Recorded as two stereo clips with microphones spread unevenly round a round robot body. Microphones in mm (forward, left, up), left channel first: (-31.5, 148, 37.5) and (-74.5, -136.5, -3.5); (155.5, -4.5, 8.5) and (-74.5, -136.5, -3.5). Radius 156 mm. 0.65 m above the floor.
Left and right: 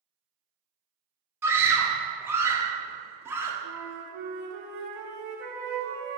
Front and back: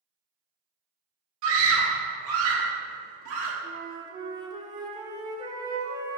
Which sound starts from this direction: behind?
A scream, at 1.4 s.